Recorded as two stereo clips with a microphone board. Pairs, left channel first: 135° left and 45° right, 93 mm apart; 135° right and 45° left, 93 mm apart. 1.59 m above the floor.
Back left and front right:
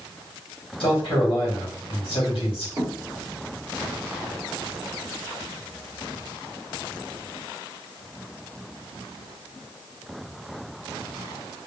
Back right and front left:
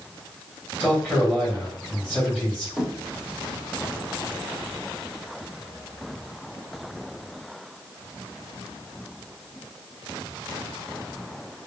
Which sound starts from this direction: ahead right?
A thud, at 2.8 s.